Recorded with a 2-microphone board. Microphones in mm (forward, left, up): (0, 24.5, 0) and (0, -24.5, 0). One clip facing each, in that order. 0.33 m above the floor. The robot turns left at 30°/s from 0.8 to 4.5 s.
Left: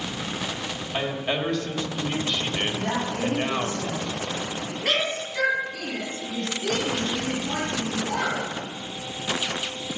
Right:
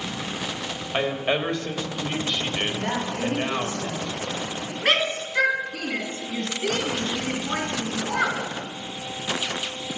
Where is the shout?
40° right (ahead or behind), 2.5 m.